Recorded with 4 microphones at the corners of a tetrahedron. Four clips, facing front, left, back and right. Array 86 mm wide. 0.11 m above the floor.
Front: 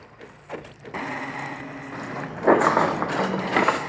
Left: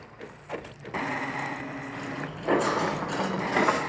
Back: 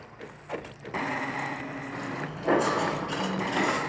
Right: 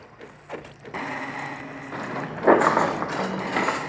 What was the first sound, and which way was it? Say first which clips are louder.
Footsteps: right 4 dB, front 5 dB; 80° right.